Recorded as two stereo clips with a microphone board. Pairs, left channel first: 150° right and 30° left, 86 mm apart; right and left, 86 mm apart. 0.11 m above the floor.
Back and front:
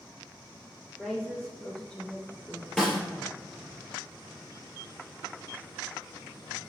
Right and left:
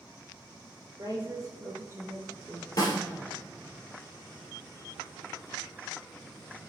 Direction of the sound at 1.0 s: 120° left.